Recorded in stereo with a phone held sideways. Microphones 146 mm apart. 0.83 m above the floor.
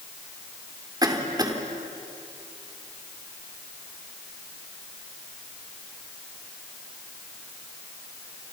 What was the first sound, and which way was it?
A cough, 25° right (ahead or behind).